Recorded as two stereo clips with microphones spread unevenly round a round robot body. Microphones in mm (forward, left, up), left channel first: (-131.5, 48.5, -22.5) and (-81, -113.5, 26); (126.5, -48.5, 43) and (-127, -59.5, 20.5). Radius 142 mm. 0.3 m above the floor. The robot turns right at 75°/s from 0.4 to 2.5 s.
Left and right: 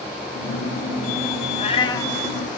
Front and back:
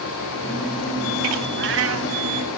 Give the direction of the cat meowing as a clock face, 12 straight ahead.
7 o'clock.